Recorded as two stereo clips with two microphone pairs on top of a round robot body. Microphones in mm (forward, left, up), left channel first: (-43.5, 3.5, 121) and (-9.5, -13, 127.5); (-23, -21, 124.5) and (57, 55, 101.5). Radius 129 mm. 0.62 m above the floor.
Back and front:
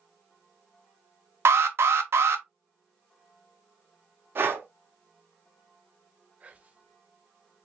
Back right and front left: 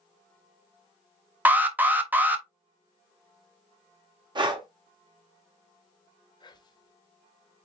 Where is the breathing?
5° left, 1.5 m.